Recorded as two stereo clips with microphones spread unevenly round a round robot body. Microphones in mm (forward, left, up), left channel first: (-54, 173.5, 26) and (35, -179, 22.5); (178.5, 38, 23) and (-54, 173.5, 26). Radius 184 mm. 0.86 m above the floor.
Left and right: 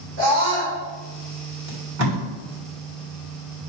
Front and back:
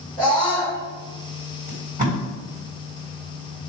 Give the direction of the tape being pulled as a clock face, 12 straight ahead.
4 o'clock.